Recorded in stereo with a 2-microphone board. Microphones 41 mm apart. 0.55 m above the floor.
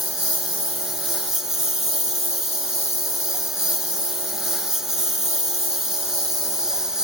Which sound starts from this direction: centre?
A lawn mower, at 0.0 s.